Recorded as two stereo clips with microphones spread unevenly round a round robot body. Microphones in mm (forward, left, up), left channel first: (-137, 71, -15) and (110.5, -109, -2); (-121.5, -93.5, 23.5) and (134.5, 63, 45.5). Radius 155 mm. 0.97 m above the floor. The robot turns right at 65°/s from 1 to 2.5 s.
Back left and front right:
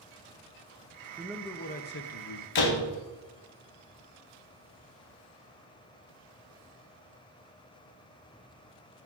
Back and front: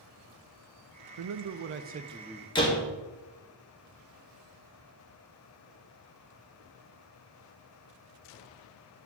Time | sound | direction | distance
1.2 | a man speaking | 45° left | 0.5 m
2.5 | a door slam | 140° left | 1.3 m